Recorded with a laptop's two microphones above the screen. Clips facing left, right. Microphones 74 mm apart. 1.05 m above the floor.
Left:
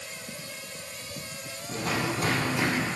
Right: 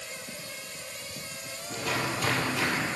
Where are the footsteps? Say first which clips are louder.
Left 2 dB; 45° left (ahead or behind), 1.8 m; by 2.9 s 25° left (ahead or behind), 1.3 m.